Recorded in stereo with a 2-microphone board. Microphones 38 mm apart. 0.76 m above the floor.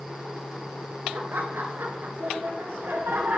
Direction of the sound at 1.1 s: 70° right (ahead or behind).